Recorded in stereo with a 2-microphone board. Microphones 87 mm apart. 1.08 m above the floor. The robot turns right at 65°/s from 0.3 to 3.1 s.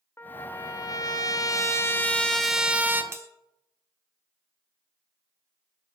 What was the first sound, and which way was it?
A trumpet, 40° left.